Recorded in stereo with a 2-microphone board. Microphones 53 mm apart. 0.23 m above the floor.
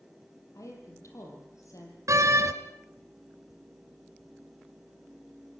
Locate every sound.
0.6 s a woman speaking: 75° left (ahead or behind), 8.5 m; by 2.0 s 80° left, 8.5 m
2.1 s a door slam: 70° right (ahead or behind), 2 m